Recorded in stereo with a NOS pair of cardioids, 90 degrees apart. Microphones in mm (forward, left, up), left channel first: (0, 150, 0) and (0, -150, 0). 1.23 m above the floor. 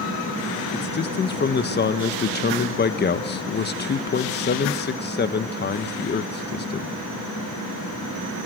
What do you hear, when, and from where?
0.7 s a man speaking: 35° left, 1.3 m